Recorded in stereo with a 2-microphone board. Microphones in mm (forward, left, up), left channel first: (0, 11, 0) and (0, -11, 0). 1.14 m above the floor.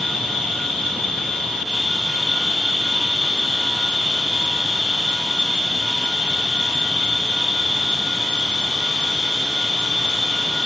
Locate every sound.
0.0 s an insect: 45° left (ahead or behind), 1.8 m